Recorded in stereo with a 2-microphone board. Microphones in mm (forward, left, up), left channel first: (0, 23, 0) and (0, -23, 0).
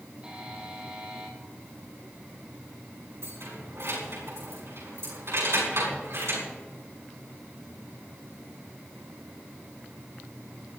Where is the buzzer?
20° right (ahead or behind), 4 m.